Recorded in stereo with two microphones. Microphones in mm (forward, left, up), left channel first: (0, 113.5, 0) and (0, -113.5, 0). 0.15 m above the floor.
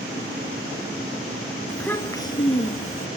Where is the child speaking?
5° left (ahead or behind), 1.7 m; by 3.1 s 40° left (ahead or behind), 1.9 m.